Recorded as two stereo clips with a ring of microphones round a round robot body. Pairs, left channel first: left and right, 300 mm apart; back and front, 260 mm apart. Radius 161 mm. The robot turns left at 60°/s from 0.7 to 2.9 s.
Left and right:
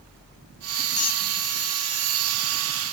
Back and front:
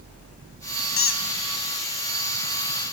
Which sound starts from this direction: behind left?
A squeak, at 1.0 s.